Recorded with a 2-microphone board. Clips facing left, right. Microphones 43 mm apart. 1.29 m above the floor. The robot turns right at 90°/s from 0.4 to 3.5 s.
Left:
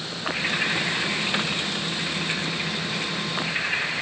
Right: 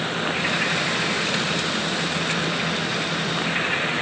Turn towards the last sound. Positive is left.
No sound to turn to.